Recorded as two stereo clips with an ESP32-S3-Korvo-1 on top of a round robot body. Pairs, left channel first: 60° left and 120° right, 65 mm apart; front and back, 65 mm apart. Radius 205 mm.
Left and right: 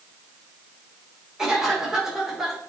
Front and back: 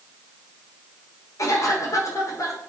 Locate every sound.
1.4 s a cough: 40° right, 2.5 m